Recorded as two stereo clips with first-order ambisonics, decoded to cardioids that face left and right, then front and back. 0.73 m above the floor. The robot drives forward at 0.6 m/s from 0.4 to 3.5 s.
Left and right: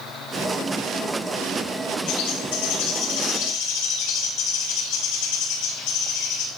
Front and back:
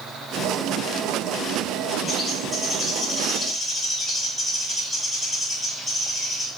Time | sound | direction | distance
2.1 | a bird | 85° left | 4.5 m